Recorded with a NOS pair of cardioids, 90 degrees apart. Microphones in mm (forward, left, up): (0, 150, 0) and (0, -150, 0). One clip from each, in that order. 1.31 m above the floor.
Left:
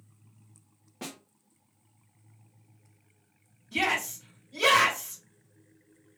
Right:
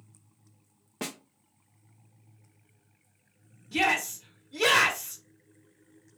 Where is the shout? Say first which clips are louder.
Right 2 dB; 40° right, 1.7 m.